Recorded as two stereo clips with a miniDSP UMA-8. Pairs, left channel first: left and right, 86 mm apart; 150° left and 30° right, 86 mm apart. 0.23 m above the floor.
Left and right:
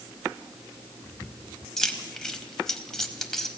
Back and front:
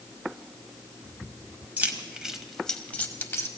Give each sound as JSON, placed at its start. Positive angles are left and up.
{"t": 1.8, "sound": "keys jangling", "azimuth_deg": 15, "distance_m": 1.0}